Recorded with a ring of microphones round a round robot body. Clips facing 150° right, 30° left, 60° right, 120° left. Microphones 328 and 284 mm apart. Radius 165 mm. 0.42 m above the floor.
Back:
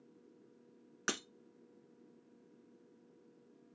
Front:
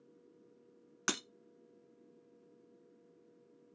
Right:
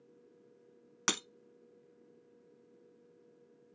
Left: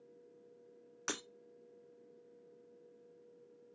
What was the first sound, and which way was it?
Breaking glass, 40° right.